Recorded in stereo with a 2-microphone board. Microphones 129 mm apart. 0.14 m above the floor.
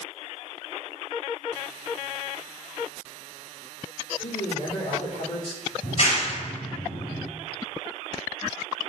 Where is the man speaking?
60° left (ahead or behind), 4 m.